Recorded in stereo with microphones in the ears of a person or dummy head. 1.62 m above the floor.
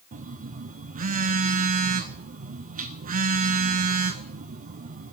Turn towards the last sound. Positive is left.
turn(degrees=-40)  # may be behind; listen again after turning